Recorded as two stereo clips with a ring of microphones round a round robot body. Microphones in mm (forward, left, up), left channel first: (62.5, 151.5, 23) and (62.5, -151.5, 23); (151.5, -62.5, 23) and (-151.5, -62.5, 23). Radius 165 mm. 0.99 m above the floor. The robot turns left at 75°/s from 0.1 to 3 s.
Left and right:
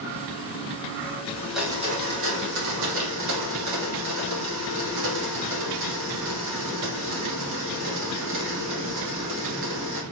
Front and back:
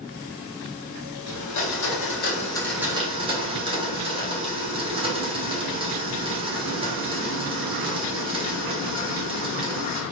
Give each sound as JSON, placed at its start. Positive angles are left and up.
{"t": 1.3, "sound": "a blender", "azimuth_deg": 20, "distance_m": 1.4}